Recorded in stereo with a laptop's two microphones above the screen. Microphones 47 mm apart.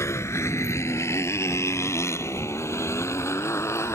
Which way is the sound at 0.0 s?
85° left.